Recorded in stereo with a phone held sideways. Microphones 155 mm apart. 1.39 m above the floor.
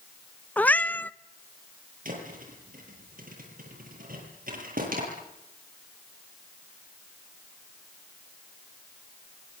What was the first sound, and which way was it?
A cat meowing, 10° left (ahead or behind).